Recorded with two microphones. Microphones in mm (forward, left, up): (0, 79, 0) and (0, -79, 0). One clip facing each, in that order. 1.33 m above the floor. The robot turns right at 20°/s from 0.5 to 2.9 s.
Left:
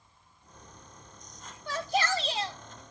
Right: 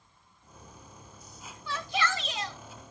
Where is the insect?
175° left, 8 m; by 2.9 s 140° right, 8 m.